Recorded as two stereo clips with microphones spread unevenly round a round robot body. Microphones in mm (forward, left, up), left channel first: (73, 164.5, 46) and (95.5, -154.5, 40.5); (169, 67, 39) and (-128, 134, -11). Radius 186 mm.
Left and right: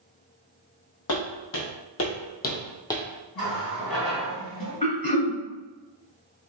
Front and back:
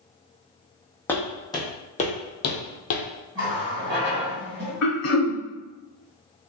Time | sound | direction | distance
1.1 | footsteps | 70° left | 1.3 m
3.4 | a running tap | 75° left | 1.9 m
4.8 | throat clearing | 25° left | 1.1 m